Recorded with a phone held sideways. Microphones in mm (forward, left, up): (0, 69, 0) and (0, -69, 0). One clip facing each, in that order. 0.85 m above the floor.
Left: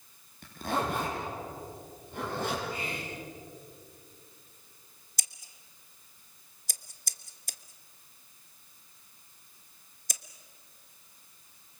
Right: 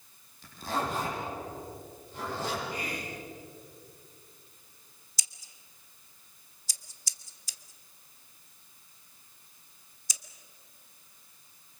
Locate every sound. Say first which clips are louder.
0.4 s a zipper: left 1 dB; 55° left (ahead or behind), 8.5 m
2.7 s whispering: even; 25° left (ahead or behind), 4 m
5.2 s scissors: left 2 dB; 50° left (ahead or behind), 1.0 m